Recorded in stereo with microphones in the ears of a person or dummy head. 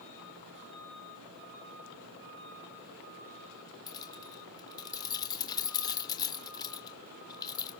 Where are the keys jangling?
20° left (ahead or behind), 3 m.